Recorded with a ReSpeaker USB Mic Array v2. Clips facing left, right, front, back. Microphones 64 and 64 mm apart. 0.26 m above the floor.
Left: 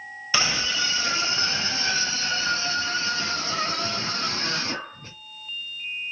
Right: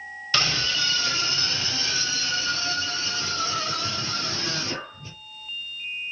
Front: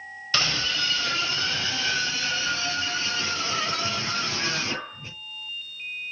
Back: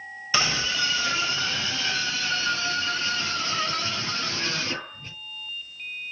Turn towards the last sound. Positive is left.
turn(degrees=75)